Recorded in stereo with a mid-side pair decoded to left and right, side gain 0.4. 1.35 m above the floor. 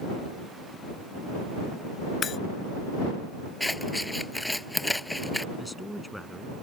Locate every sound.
2.2 s breaking glass: 55° left
3.6 s scissors: 10° left
5.6 s a man speaking: straight ahead